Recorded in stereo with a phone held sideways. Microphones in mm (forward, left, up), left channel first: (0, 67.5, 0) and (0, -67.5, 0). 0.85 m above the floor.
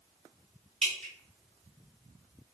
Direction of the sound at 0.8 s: 5° left (ahead or behind).